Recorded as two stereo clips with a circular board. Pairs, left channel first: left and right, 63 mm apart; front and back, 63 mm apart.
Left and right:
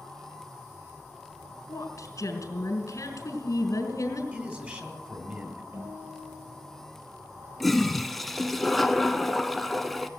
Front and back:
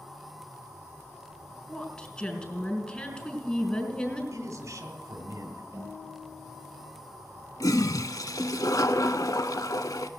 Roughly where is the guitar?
Behind right.